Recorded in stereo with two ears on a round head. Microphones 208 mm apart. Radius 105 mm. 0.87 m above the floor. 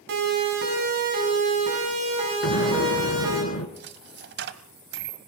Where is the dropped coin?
50° right (ahead or behind), 1.1 m.